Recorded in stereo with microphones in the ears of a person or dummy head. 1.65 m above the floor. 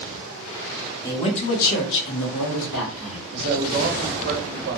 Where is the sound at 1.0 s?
20° left (ahead or behind), 0.8 m; by 3.2 s 80° left, 1.6 m.